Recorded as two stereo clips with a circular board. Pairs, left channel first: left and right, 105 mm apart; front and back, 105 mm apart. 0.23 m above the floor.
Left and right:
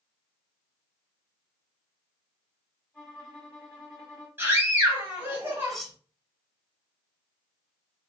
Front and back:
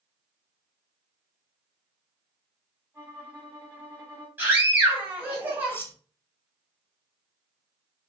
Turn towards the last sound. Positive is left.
turn(degrees=5)